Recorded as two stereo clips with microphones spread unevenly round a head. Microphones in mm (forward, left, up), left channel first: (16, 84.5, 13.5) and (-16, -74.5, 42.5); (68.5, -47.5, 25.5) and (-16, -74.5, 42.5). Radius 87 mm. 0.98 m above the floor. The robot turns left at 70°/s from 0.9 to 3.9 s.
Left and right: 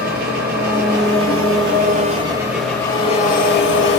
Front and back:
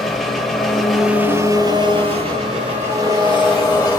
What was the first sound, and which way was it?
An engine running, 70° right.